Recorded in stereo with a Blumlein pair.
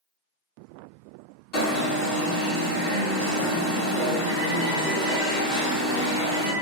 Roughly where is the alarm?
Ahead left.